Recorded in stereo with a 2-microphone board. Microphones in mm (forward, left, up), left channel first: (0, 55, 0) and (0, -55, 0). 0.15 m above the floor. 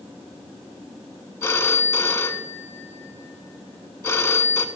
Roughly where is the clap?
I don't hear a clap.